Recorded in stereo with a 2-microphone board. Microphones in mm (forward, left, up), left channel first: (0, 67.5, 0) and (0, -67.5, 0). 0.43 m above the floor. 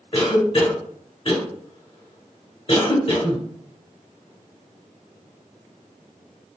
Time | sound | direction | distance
0.1 | a cough | 40° left (ahead or behind) | 1.6 m